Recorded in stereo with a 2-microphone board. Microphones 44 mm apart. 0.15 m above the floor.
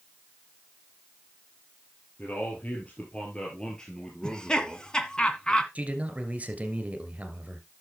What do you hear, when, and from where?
2.2 s a man speaking: 40° left (ahead or behind), 3.5 m; by 5.2 s 5° right (ahead or behind), 2.5 m
4.2 s laughter: 20° left (ahead or behind), 1.3 m
5.8 s a man speaking: 30° right (ahead or behind), 2 m